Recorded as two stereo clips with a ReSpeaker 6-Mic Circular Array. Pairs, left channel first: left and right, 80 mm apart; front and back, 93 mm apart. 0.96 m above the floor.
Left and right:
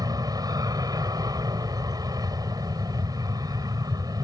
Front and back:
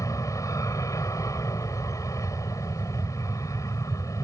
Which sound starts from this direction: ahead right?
An aircraft, at 0.0 s.